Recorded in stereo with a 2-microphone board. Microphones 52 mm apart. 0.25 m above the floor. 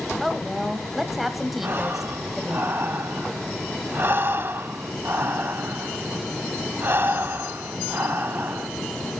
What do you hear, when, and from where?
0.2 s a woman speaking: 5° right (ahead or behind), 1.1 m
1.6 s breathing: 45° right (ahead or behind), 0.6 m